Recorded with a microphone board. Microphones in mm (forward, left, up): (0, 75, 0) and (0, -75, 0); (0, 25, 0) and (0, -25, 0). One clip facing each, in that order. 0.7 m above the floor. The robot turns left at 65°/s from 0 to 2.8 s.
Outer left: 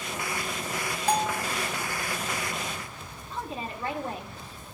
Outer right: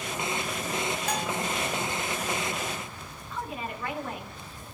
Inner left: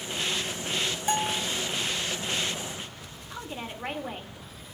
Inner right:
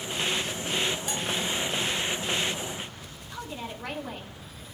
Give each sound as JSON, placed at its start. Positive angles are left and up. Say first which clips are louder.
{"t": 1.1, "sound": "a bell", "louder": "outer left 4 dB, inner left 3 dB", "side_deg": 35, "distance_m": 0.6}
{"t": 3.3, "sound": "a woman speaking", "louder": "even, even", "side_deg": 30, "distance_m": 2.0}